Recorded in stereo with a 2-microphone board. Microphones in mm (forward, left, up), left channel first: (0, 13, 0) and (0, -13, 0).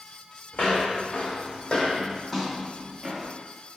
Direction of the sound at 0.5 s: 80° left.